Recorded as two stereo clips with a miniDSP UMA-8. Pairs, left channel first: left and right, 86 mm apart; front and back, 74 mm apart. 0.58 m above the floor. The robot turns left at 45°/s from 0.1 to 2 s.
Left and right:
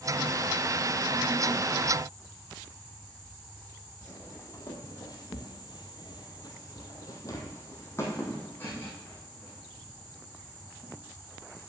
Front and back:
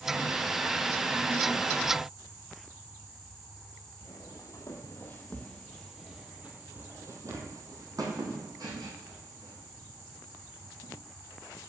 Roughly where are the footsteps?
Ahead left.